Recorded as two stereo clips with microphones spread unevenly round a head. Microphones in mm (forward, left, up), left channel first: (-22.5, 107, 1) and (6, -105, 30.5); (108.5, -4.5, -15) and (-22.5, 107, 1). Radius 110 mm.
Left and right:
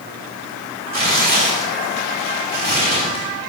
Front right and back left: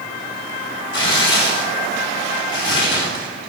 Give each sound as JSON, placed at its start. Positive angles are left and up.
{"t": 0.9, "sound": "tearing paper", "azimuth_deg": -35, "distance_m": 3.5}